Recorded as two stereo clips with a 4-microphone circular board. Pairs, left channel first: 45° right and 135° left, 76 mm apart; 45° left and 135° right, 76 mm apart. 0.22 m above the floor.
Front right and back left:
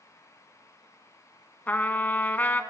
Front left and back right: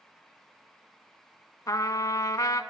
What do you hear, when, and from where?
1.7 s a trumpet: 20° left, 0.6 m